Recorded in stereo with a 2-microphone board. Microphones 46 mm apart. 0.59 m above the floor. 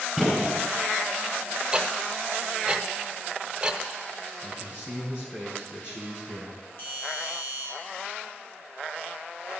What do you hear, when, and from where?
0.2 s a gunshot: 5° left (ahead or behind), 6 m
1.7 s ticking: 20° right (ahead or behind), 0.9 m
4.4 s a man speaking: 50° left (ahead or behind), 5 m
6.8 s a doorbell: 55° left (ahead or behind), 3.5 m